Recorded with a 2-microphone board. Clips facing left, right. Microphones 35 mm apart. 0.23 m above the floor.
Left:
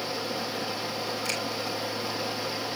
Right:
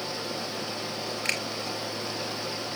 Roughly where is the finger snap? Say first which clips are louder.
Right 5 dB; right.